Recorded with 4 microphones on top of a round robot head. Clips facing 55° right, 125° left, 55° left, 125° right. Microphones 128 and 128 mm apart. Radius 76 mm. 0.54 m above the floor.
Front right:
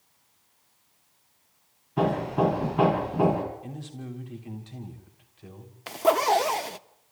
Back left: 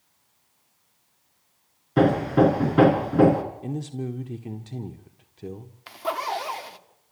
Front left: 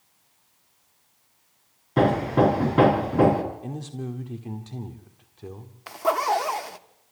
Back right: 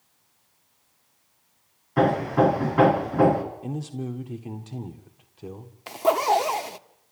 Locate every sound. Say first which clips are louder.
2.0 s hammering: back left 6 dB, even; 120° left, 3.5 m
3.6 s a man speaking: back left 8 dB, back right 2 dB; 155° left, 1.6 m
5.9 s a zipper: front right 7 dB, back right 2 dB; 65° right, 0.9 m